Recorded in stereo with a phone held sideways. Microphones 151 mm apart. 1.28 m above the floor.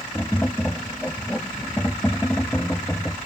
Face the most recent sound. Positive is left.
turn(degrees=10)  # may be behind; listen again after turning